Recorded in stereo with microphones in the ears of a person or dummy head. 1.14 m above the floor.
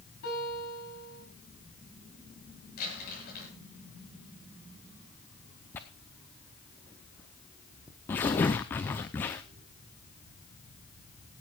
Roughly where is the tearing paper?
Centre.